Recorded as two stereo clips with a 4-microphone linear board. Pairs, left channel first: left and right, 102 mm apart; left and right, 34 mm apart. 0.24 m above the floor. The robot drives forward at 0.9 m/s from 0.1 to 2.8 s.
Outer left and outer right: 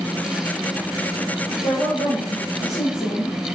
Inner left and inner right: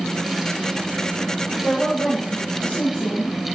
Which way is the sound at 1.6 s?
55° left (ahead or behind).